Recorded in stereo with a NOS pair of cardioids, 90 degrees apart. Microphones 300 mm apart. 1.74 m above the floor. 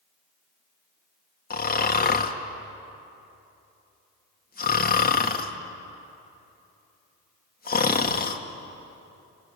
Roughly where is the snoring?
Ahead left.